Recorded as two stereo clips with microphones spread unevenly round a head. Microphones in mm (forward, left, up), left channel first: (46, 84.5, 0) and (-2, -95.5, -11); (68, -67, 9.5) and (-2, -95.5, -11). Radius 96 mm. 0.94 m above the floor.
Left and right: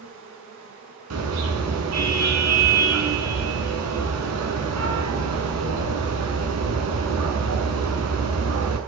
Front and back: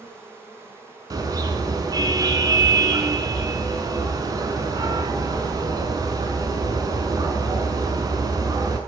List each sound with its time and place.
0.0 s an insect: 100° right, 9 m
1.1 s a car horn: 120° right, 6 m